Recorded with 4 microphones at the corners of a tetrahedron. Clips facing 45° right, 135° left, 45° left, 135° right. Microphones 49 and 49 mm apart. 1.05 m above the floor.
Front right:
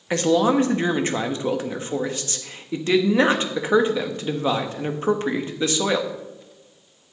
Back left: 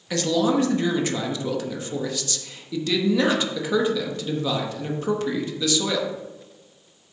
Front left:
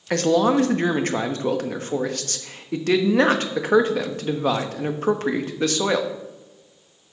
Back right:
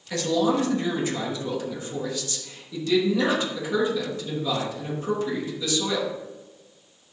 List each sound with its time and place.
0.1 s a man speaking: 10° left, 1.0 m